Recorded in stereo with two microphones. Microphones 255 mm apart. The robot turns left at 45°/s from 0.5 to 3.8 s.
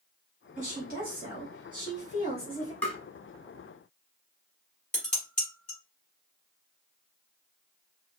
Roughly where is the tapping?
Centre.